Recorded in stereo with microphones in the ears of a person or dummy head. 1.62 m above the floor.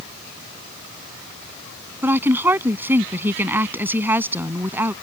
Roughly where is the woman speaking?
Centre.